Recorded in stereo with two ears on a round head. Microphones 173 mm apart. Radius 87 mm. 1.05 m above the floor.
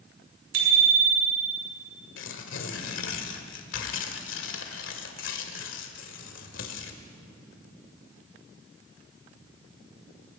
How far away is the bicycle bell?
About 7.5 m.